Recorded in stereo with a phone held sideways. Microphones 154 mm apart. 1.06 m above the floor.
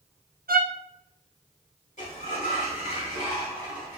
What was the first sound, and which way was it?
A violin, 70° right (ahead or behind).